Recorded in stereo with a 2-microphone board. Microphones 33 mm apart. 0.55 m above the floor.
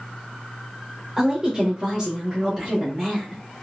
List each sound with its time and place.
1.2 s a woman speaking: 15° right (ahead or behind), 1.1 m; by 3.4 s 10° right (ahead or behind), 1.5 m